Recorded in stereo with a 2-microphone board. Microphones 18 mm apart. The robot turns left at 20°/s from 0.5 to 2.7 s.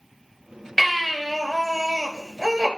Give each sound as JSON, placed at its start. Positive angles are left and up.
{"t": 0.8, "sound": "a baby crying", "azimuth_deg": 5, "distance_m": 4.5}